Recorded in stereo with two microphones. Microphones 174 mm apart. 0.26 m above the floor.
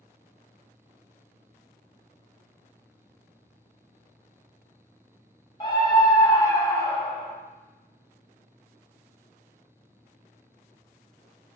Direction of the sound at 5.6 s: 30° left (ahead or behind).